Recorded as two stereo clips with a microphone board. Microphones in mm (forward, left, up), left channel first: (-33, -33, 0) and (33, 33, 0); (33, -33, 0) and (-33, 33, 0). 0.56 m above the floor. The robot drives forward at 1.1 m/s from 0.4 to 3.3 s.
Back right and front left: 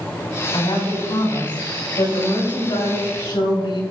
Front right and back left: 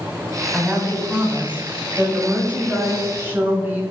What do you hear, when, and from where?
0.5 s a woman speaking: 145° right, 4.5 m; by 3.8 s 160° right, 7 m